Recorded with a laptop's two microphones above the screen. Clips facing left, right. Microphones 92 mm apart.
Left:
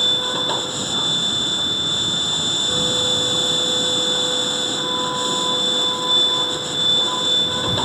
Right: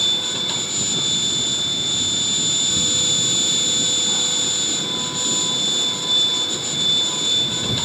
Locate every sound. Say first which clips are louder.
0.0 s a machine running: left 5 dB; 40° left (ahead or behind)